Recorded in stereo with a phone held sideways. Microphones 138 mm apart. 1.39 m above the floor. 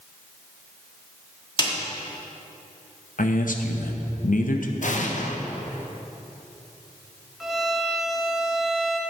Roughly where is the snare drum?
Left.